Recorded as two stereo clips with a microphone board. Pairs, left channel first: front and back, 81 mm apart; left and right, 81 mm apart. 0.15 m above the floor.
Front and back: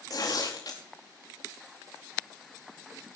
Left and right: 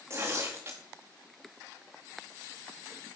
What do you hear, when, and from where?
0.1 s tearing paper: 35° right, 4 m